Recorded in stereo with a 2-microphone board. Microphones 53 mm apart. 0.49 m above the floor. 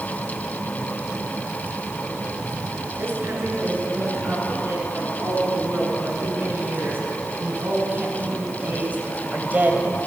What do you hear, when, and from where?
3.0 s a woman speaking: 40° right (ahead or behind), 8.5 m; by 10.0 s 30° right (ahead or behind), 2.5 m